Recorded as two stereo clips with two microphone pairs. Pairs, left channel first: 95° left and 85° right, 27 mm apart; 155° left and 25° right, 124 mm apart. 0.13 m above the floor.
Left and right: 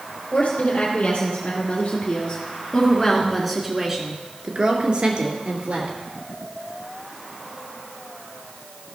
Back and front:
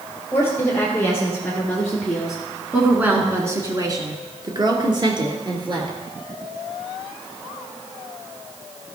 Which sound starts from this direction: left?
A woman speaking, at 0.3 s.